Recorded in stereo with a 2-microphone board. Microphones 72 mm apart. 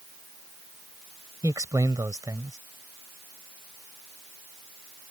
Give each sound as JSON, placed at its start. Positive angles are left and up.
{"t": 1.4, "sound": "a man speaking", "side_deg": -50}